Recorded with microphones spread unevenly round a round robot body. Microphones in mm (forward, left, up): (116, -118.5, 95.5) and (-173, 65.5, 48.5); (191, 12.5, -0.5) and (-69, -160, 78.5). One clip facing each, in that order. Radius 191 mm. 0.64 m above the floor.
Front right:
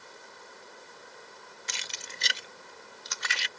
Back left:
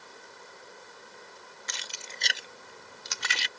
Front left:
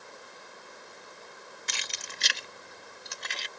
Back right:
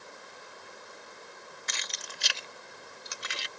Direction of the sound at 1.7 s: 20° left.